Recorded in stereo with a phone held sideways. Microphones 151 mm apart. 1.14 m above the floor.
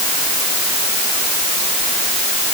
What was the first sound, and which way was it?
Only background noise.